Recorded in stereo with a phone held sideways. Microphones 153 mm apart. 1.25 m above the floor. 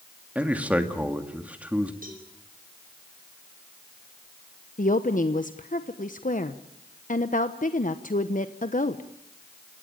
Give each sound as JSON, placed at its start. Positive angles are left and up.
{"t": 0.3, "sound": "a man speaking", "side_deg": -10, "distance_m": 2.0}
{"t": 2.0, "sound": "a cowbell", "side_deg": -60, "distance_m": 5.5}
{"t": 4.8, "sound": "a woman speaking", "side_deg": 55, "distance_m": 1.0}